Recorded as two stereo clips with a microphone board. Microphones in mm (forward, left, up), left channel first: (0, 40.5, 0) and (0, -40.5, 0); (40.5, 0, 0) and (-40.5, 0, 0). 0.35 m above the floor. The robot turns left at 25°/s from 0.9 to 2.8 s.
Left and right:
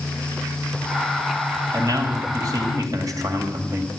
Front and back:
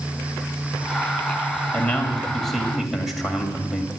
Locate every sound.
1.7 s a man speaking: 70° right, 2 m; by 3.9 s 95° right, 2 m